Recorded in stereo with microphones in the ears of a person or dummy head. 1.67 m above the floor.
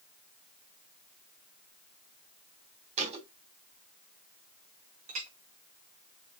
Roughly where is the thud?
Right.